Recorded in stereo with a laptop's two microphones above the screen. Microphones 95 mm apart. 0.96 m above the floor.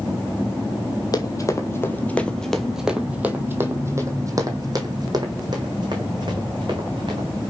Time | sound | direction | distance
1.1 | running footsteps | 40° left (ahead or behind) | 1.3 m